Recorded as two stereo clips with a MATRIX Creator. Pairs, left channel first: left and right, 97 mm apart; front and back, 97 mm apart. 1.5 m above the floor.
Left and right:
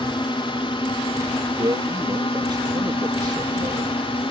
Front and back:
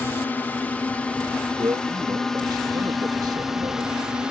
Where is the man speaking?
135° right.